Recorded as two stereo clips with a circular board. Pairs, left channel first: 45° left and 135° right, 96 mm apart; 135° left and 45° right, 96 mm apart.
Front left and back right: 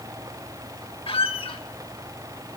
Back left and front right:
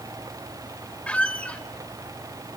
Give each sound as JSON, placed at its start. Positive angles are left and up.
{"t": 1.1, "sound": "a squeak", "azimuth_deg": 60, "distance_m": 0.9}